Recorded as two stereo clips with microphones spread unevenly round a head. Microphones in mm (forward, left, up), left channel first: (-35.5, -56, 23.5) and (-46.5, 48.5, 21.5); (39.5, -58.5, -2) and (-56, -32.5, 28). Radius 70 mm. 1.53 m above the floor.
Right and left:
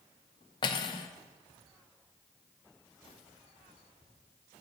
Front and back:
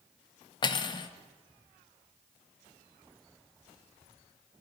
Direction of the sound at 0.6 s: 60° right.